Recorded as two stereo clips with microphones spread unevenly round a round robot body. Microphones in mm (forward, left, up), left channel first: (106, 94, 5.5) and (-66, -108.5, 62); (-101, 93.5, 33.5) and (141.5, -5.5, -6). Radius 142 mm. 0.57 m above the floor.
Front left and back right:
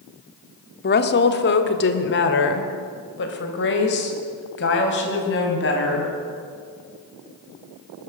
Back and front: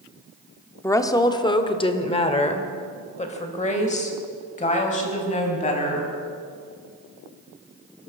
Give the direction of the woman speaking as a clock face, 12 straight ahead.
10 o'clock.